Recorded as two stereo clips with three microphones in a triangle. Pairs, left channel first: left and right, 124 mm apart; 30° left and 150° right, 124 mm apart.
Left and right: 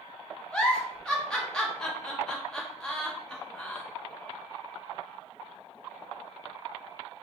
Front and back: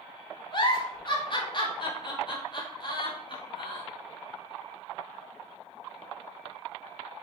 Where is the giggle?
10° left, 0.9 m.